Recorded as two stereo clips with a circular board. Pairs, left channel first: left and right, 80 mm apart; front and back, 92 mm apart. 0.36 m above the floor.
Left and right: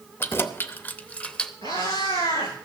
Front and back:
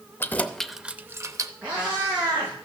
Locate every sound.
0.2 s keys jangling: 50° left, 0.6 m; by 1.5 s 165° left, 0.7 m
1.6 s a cat meowing: 105° left, 9.5 m